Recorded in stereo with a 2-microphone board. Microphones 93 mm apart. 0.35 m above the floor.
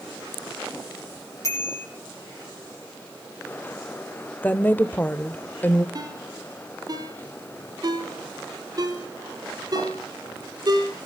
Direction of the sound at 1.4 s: 30° left (ahead or behind).